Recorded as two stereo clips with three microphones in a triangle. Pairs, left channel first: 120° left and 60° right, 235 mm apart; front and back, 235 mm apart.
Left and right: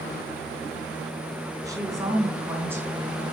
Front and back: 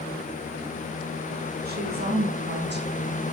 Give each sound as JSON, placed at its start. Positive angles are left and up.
{"t": 1.6, "sound": "a woman speaking", "azimuth_deg": -135, "distance_m": 6.0}